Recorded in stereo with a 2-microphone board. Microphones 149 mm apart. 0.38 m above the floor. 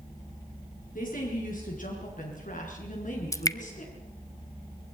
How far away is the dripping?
About 0.7 m.